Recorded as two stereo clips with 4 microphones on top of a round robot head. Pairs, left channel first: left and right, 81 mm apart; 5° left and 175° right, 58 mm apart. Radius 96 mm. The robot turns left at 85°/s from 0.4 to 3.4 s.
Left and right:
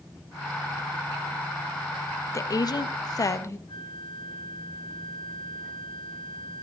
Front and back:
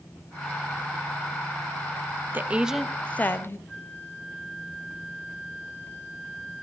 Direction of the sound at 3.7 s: 65° left.